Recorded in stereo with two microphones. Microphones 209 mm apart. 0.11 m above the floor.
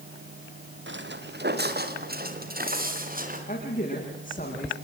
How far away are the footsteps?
About 1.8 m.